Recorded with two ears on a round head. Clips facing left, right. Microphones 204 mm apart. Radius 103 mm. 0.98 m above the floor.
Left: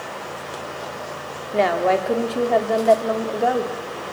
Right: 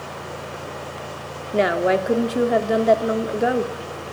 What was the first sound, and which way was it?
A woman speaking, 20° right (ahead or behind).